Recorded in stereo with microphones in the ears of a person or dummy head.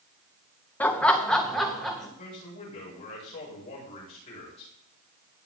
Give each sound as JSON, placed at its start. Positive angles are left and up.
{"t": 0.8, "sound": "laughter", "side_deg": 10, "distance_m": 1.0}
{"t": 2.2, "sound": "a man speaking", "side_deg": 35, "distance_m": 7.0}